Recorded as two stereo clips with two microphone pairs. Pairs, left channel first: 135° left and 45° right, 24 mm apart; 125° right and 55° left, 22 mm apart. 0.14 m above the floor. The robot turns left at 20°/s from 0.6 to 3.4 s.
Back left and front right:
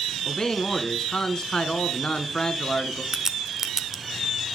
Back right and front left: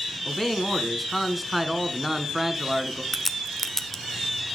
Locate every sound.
0.2 s a man speaking: 155° left, 1.2 m; by 3.0 s 110° left, 1.2 m
3.1 s a crack: 60° right, 0.7 m; by 4.0 s 65° right, 0.7 m